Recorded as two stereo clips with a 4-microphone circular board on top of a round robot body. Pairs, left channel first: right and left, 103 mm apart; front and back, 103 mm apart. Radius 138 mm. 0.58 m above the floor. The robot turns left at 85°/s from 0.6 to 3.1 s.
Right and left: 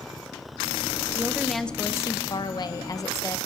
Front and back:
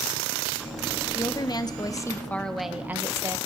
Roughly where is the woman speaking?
Ahead left.